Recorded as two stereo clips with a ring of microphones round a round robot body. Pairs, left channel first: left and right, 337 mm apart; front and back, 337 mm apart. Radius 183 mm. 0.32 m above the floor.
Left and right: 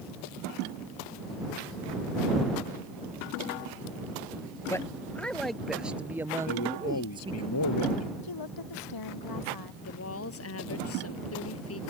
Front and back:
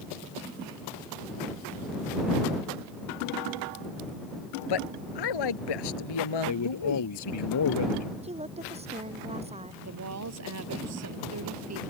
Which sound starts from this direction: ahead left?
A man speaking, at 6.5 s.